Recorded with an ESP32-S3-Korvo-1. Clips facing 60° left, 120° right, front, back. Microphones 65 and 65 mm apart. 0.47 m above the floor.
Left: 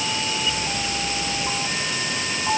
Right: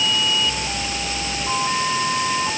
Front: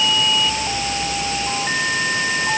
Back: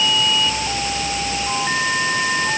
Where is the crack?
No crack in this recording.